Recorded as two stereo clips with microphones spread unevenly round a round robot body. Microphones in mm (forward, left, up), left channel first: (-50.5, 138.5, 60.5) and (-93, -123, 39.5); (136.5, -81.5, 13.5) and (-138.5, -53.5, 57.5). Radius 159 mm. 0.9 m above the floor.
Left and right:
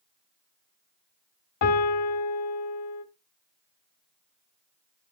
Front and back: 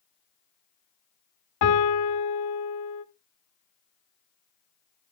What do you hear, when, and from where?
1.6 s a piano: 35° left, 1.4 m